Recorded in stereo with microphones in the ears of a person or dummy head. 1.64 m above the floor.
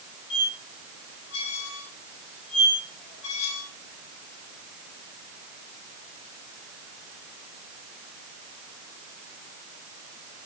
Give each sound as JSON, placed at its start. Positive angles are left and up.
{"t": 0.3, "sound": "a squeak", "side_deg": 70, "distance_m": 3.5}